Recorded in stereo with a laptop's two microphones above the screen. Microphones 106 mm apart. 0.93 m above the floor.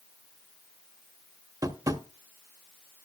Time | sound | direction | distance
1.6 | tapping | 35° right (ahead or behind) | 1.1 m